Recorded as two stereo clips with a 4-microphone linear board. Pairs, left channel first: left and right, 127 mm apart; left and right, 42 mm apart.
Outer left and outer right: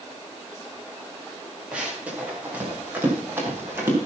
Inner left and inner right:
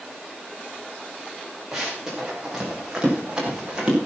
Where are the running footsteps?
10° right (ahead or behind), 6.5 m; by 4.0 s 20° right (ahead or behind), 6.5 m.